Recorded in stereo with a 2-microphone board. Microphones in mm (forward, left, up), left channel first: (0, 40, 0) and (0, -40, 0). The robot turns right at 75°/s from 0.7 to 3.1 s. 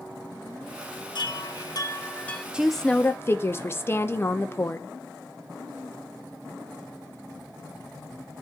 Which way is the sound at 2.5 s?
15° right.